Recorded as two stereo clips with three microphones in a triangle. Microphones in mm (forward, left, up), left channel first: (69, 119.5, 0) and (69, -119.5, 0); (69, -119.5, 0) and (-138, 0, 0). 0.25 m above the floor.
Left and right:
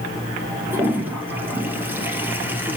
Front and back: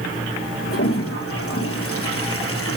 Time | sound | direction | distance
0.7 | a toilet flushing | 10° right | 2.5 m